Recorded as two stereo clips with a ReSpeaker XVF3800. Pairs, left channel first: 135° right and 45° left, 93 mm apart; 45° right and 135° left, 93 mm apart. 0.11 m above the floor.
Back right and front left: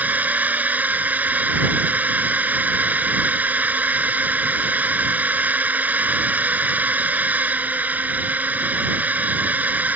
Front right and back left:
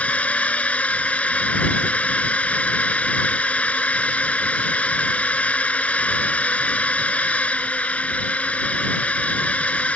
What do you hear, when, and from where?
0.0 s a drone: 5° left